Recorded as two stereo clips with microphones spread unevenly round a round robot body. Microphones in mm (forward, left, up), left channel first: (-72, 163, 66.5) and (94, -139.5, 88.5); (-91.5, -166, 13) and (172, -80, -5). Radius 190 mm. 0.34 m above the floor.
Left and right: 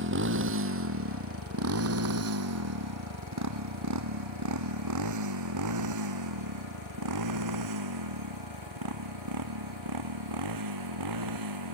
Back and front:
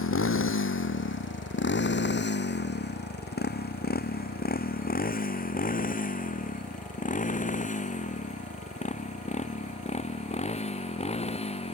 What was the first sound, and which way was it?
A motorcycle, 120° right.